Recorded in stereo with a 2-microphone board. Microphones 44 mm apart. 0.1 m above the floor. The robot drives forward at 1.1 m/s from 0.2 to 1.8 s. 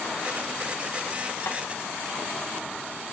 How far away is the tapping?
About 3 m.